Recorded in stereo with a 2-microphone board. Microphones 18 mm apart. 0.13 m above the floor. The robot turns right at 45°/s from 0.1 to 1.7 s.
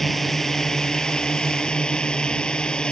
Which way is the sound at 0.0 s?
20° left.